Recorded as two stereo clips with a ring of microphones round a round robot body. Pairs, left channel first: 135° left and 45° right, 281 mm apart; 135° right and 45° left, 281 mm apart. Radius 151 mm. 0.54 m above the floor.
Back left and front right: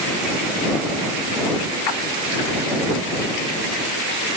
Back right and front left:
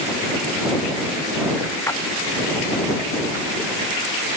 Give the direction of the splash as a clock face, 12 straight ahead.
7 o'clock.